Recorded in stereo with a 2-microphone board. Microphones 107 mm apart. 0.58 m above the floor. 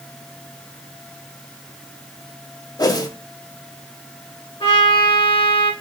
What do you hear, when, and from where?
2.8 s a whoosh: 35° left (ahead or behind), 0.7 m
4.6 s a trumpet: 55° left (ahead or behind), 1.3 m